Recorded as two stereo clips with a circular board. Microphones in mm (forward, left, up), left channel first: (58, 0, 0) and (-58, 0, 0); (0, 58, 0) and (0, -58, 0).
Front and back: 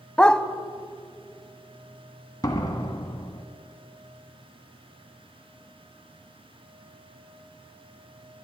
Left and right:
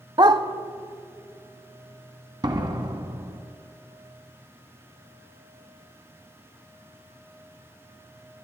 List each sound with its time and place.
0.2 s a dog barking: 80° right, 0.5 m
2.4 s a door slam: 50° right, 1.2 m